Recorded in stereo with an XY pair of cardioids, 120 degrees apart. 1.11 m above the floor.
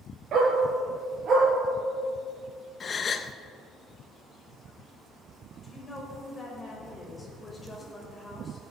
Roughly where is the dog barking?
Ahead right.